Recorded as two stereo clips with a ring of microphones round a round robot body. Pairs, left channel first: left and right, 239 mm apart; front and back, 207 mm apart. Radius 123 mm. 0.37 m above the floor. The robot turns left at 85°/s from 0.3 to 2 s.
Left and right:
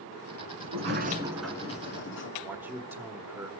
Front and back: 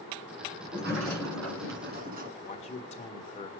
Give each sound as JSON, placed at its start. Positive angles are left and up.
{"t": 0.6, "sound": "a sliding door", "azimuth_deg": -110, "distance_m": 2.0}
{"t": 2.4, "sound": "a man speaking", "azimuth_deg": -15, "distance_m": 1.3}